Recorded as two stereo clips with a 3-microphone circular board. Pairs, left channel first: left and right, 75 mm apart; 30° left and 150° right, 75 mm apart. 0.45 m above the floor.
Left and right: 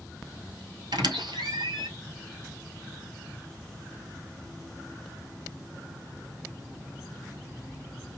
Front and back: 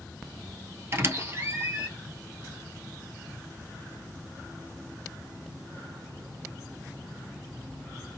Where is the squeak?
100° right, 1.5 m.